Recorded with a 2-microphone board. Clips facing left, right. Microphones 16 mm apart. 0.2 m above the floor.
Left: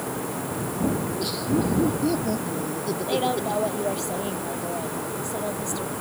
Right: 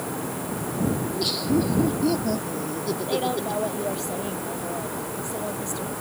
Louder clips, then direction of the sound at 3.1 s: Left 2 dB; 5° left (ahead or behind).